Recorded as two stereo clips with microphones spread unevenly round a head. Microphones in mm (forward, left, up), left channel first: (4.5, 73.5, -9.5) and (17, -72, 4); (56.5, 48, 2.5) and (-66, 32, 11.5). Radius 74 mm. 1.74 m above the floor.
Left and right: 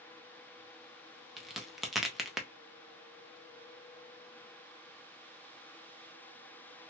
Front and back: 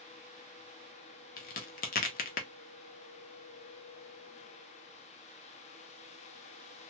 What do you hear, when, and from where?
1.4 s a crack: straight ahead, 0.7 m